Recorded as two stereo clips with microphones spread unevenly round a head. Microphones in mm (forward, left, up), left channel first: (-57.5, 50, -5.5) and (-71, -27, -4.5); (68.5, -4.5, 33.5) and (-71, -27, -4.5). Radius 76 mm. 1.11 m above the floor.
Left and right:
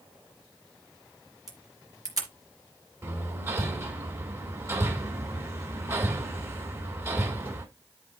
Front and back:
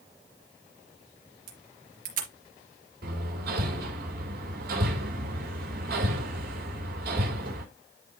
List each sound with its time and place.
1.5 s a camera shutter: 140° right, 4 m
3.0 s hammering: 155° right, 3.5 m